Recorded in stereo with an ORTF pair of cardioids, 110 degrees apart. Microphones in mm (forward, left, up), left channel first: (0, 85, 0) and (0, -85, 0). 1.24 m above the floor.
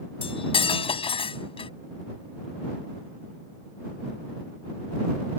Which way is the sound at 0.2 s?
35° left.